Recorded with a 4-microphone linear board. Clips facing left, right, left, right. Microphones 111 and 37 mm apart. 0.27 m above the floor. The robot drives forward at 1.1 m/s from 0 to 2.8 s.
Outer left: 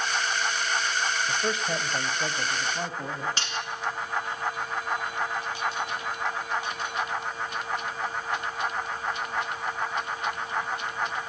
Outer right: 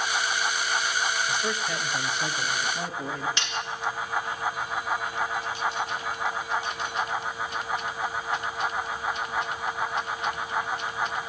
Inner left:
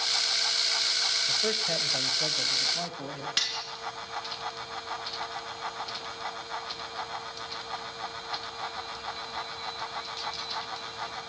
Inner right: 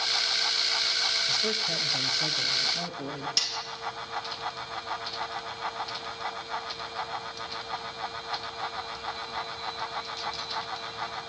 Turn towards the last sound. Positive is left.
turn(degrees=40)  # may be behind; listen again after turning